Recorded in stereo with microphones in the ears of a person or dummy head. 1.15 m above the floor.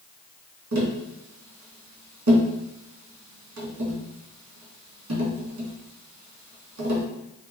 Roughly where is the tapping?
Right.